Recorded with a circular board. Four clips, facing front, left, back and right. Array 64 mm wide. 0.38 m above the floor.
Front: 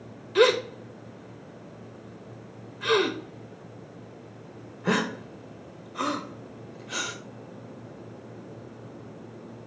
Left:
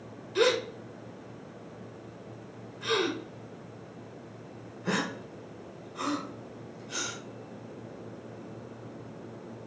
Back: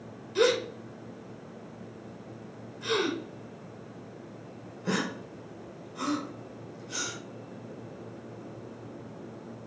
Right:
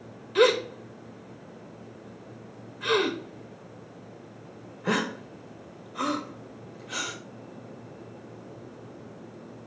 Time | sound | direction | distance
0.3 | a gasp | 30° right | 0.7 m